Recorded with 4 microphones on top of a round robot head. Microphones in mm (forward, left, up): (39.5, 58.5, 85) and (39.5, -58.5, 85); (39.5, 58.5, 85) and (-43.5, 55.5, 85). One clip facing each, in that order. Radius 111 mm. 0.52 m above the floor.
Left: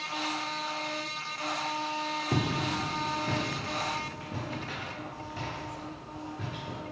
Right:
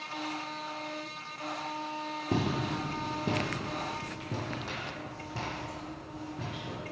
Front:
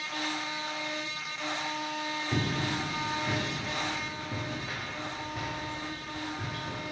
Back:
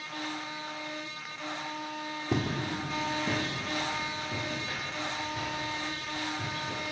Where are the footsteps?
150° right, 1.3 m; by 6.8 s 65° right, 3 m.